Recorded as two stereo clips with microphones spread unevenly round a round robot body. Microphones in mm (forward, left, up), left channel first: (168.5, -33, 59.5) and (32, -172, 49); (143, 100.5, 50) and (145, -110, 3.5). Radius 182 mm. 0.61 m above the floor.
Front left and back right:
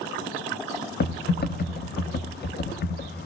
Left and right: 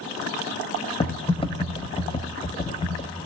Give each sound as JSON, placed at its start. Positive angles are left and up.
{"t": 1.0, "sound": "typing on a keyboard", "azimuth_deg": 20, "distance_m": 1.0}